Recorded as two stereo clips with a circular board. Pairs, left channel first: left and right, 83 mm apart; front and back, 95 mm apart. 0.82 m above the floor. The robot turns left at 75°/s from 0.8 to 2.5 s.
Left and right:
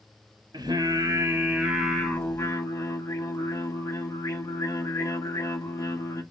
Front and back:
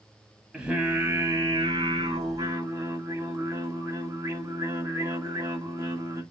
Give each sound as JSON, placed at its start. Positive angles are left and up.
{"t": 0.5, "sound": "singing", "azimuth_deg": -100, "distance_m": 1.0}